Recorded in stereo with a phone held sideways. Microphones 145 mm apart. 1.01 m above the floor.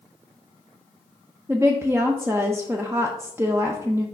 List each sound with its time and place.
1.5 s a woman speaking: 15° right (ahead or behind), 0.5 m